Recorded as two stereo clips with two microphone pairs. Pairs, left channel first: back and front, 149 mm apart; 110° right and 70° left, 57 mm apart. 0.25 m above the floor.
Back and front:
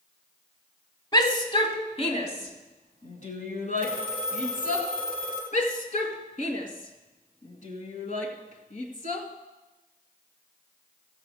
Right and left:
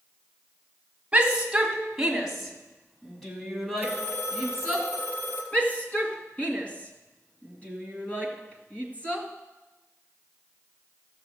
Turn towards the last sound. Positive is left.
turn(degrees=-175)